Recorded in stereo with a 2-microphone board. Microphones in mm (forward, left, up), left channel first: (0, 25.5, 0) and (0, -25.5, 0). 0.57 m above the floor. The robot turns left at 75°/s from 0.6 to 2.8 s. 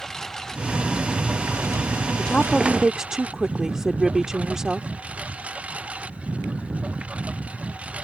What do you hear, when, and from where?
0.0 s a lawn mower: 10° left; by 8.0 s 155° right
2.2 s a woman speaking: 35° left; by 4.9 s 15° right